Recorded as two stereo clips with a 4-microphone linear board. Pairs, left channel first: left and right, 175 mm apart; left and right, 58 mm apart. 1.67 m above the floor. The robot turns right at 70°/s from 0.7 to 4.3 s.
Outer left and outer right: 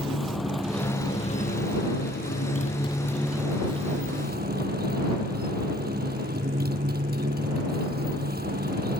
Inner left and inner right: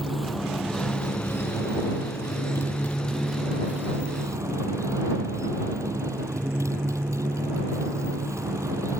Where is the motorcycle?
Straight ahead; by 9.0 s 110° right.